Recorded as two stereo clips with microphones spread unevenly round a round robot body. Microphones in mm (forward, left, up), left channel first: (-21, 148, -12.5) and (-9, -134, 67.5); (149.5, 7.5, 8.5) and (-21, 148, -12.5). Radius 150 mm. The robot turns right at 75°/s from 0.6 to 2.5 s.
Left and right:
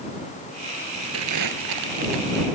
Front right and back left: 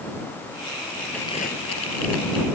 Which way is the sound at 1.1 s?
125° right.